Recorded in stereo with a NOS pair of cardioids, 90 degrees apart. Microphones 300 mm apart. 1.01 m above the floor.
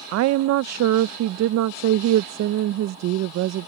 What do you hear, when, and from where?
0.1 s a woman speaking: 65° right